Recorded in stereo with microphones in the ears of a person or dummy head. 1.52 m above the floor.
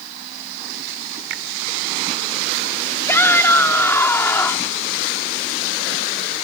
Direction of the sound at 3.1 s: 15° left (ahead or behind).